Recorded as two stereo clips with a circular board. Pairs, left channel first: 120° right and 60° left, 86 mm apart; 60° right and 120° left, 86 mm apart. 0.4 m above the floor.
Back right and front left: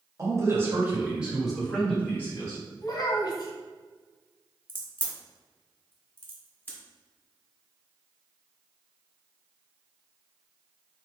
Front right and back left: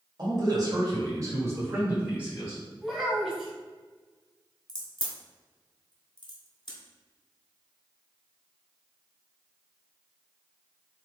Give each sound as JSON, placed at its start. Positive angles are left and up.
{"t": 0.2, "sound": "a man speaking", "azimuth_deg": 100, "distance_m": 1.6}
{"t": 2.8, "sound": "a child speaking", "azimuth_deg": -160, "distance_m": 1.7}
{"t": 4.7, "sound": "a crack", "azimuth_deg": -55, "distance_m": 1.1}